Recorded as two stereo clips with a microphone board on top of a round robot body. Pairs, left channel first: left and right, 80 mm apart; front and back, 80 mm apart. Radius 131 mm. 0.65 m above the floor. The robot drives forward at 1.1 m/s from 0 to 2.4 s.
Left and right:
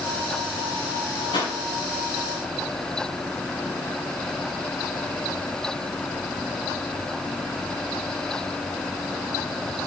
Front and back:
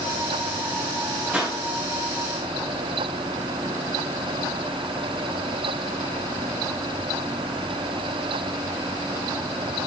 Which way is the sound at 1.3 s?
110° left.